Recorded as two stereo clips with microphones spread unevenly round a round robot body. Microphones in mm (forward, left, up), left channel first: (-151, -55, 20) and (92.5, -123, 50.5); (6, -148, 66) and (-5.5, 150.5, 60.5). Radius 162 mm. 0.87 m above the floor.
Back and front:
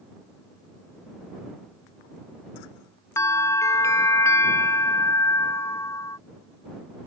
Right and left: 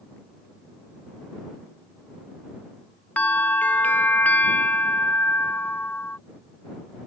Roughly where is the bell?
Behind.